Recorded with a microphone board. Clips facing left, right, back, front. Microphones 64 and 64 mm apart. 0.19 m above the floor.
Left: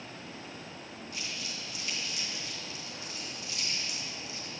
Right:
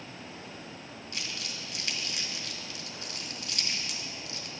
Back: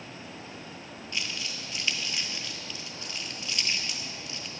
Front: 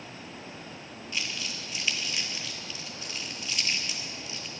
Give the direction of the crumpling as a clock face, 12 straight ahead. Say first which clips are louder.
Right 2 dB, even; 3 o'clock.